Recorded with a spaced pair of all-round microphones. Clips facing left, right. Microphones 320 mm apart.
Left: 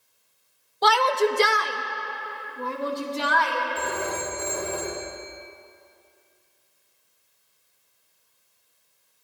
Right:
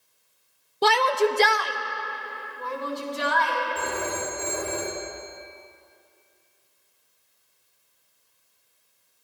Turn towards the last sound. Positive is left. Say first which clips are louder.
# even
turn(degrees=-30)  # may be behind; listen again after turning